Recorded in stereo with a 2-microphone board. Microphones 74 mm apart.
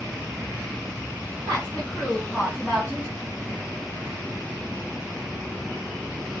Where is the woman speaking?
15° left (ahead or behind), 2 m; by 3.1 s 10° left (ahead or behind), 1.2 m.